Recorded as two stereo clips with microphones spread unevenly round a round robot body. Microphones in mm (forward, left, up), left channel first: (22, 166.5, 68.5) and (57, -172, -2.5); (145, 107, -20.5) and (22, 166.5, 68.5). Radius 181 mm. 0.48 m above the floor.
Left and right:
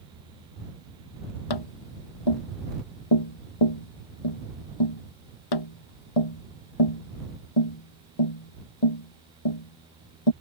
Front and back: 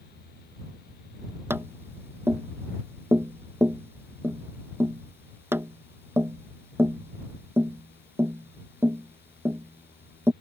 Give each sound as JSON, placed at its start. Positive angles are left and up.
{"t": 1.5, "sound": "tapping", "azimuth_deg": 85}